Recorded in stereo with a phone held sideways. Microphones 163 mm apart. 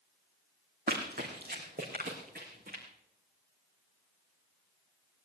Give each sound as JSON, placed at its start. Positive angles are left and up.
{"t": 0.9, "sound": "running footsteps", "side_deg": -65, "distance_m": 3.0}